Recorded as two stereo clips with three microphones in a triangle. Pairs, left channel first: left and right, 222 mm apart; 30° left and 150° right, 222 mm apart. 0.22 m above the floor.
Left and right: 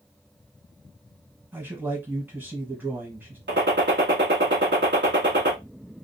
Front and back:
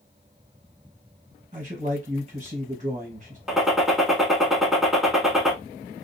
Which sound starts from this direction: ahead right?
A gunshot, at 3.5 s.